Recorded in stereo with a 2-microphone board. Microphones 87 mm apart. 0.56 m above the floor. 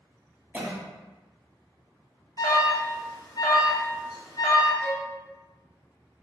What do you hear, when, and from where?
0.5 s a cough: 15° right (ahead or behind), 0.6 m
2.4 s an alarm: 45° left (ahead or behind), 0.6 m
4.8 s a violin: 25° right (ahead or behind), 0.7 m